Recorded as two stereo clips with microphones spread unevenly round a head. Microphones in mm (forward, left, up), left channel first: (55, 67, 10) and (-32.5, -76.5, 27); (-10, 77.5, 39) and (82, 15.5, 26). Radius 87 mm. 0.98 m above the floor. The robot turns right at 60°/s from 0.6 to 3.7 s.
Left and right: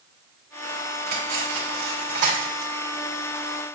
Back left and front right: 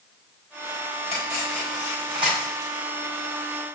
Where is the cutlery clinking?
160° right, 3 m; by 2.7 s 60° right, 3 m.